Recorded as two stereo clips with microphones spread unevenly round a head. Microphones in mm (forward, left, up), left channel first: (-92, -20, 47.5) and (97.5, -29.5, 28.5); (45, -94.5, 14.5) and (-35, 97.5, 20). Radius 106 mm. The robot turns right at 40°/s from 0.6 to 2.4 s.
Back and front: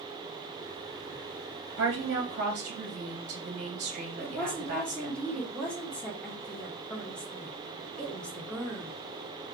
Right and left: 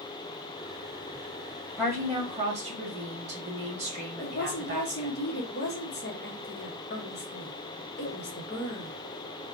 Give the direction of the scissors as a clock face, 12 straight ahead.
No scissors in this recording.